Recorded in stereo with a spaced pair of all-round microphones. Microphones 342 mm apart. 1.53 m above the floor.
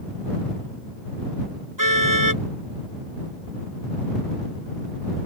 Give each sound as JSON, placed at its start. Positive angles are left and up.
{"t": 1.8, "sound": "a car horn", "side_deg": -65}